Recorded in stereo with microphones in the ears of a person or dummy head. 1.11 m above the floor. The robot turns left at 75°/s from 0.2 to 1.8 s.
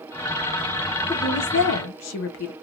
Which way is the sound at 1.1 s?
160° left.